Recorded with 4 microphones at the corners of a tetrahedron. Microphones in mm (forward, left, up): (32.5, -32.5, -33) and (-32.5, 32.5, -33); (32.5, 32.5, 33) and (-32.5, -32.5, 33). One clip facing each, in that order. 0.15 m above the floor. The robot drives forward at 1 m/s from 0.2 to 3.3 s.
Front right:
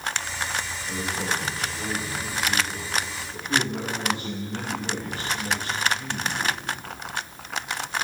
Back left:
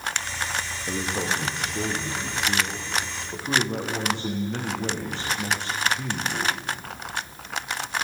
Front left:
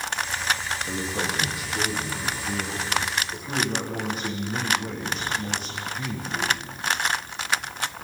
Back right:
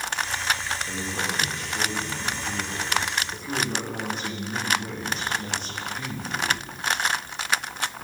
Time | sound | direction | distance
0.9 | a man speaking | 115° left | 6 m